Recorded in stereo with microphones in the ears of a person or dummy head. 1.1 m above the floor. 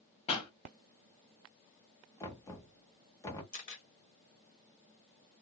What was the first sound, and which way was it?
A pop, 35° left (ahead or behind).